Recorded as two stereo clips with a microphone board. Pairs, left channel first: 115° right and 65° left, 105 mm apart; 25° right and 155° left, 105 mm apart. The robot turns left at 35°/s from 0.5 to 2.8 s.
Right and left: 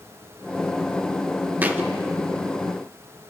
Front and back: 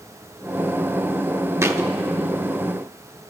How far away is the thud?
About 0.8 m.